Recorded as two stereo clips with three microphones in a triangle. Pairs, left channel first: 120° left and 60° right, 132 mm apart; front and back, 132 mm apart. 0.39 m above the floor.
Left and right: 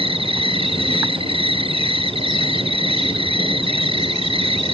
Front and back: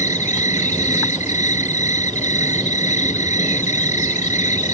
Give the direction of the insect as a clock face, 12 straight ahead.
1 o'clock.